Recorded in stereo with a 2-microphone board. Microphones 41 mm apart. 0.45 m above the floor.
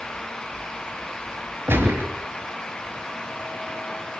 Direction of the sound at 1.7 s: 60° right (ahead or behind).